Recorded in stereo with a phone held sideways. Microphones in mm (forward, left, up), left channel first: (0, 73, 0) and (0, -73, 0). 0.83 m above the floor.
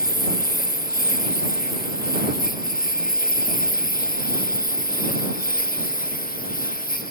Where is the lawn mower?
85° left.